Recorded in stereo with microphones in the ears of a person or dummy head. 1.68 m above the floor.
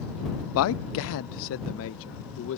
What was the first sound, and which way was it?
A man speaking, 80° left.